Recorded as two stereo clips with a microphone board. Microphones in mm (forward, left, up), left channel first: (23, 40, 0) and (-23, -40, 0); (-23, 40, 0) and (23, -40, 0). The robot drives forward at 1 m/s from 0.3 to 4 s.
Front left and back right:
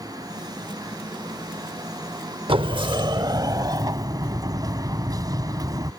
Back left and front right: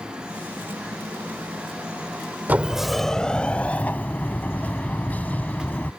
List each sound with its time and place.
2.5 s a sliding door: 130° right; by 5.9 s 165° right